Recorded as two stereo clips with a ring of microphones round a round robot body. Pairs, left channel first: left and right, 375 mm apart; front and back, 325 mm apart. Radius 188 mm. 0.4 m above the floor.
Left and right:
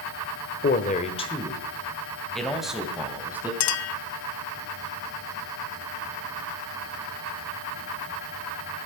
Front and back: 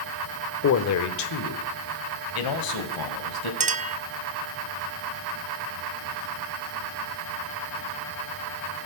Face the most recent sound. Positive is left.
turn(degrees=120)